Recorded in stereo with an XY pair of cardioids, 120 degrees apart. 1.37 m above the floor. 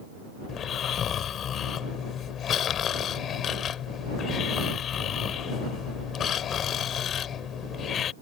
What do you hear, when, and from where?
0.5 s snoring: 50° left